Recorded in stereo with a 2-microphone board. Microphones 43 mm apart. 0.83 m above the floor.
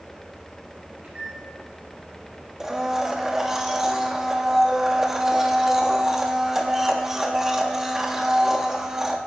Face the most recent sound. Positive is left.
turn(degrees=-10)  # may be behind; listen again after turning